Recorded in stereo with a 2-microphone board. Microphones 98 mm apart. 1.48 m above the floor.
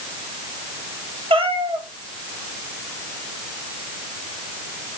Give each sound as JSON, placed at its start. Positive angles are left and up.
{"t": 1.3, "sound": "a cat meowing", "side_deg": -65, "distance_m": 3.0}